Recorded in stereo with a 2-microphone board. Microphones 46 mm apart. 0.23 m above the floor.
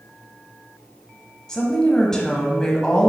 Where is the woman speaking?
15° left (ahead or behind), 1.3 m.